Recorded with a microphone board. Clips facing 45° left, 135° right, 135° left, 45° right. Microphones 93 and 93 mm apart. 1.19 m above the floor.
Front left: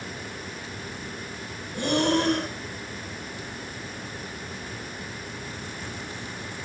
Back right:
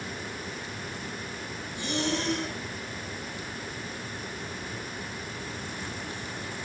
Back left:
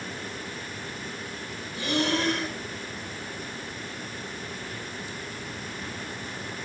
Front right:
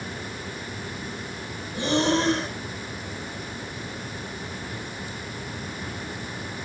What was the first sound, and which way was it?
Breathing, 15° left.